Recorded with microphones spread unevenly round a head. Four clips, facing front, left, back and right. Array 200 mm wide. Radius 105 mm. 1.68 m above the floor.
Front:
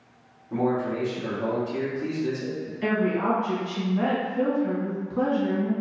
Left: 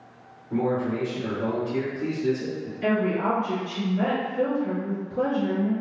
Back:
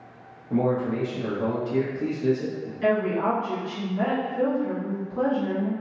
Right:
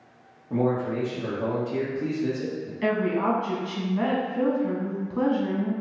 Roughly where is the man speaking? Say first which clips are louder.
Even, back 1 dB; behind right.